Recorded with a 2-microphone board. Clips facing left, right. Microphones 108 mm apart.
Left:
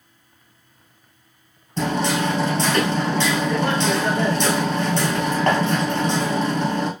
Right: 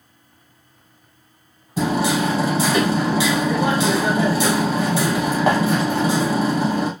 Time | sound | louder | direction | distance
1.8 | hammering | right 2 dB | 10° right (ahead or behind) | 1.0 m